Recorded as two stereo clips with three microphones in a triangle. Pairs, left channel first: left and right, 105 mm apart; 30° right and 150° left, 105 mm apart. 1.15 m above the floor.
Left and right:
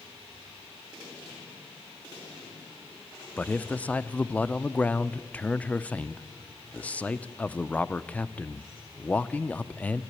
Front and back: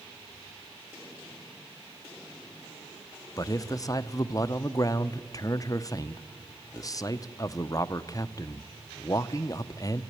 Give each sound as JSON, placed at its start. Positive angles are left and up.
{"t": 3.4, "sound": "a man speaking", "azimuth_deg": 15, "distance_m": 0.6}